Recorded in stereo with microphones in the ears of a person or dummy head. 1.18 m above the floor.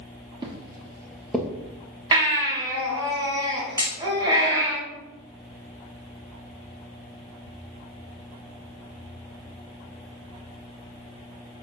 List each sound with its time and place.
0.4 s footsteps: 25° right (ahead or behind), 1.6 m; by 1.5 s centre (ahead or behind), 1.2 m
2.1 s a baby crying: 25° right (ahead or behind), 2.5 m
3.8 s hammering: 20° right (ahead or behind), 2.5 m